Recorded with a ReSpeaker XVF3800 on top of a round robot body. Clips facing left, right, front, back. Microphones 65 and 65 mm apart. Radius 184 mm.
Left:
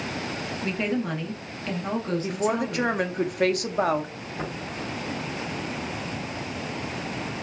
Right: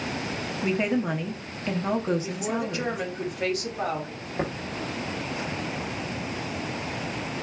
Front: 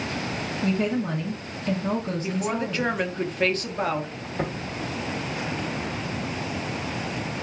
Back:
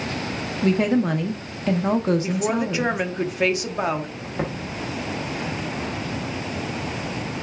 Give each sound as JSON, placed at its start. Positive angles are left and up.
{"t": 0.6, "sound": "a woman speaking", "azimuth_deg": -165, "distance_m": 0.9}
{"t": 2.2, "sound": "a woman speaking", "azimuth_deg": 105, "distance_m": 0.8}
{"t": 4.4, "sound": "tapping", "azimuth_deg": -120, "distance_m": 0.6}